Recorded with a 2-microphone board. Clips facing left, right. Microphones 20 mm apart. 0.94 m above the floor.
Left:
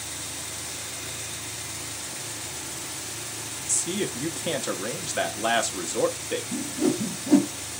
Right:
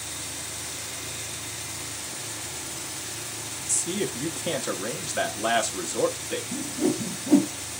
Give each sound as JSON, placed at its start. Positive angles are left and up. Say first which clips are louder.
{"t": 3.7, "sound": "a man speaking", "louder": "even", "side_deg": 15, "distance_m": 0.9}
{"t": 6.5, "sound": "a whoosh", "louder": "left 1 dB", "side_deg": 25, "distance_m": 0.6}